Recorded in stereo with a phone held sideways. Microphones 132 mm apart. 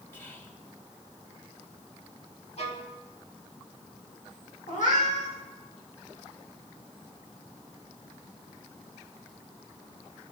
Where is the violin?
60° left (ahead or behind), 2 m.